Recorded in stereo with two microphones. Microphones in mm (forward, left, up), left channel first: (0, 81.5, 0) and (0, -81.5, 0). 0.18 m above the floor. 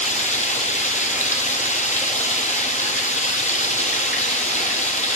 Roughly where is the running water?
Left.